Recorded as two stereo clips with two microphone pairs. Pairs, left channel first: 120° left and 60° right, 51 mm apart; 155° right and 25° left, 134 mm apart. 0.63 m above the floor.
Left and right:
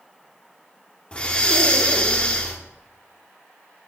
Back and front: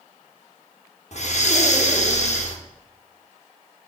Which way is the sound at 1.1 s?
175° right.